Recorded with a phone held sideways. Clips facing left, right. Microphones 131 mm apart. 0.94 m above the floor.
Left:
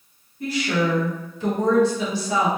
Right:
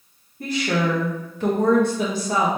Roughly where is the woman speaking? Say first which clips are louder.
Even; right.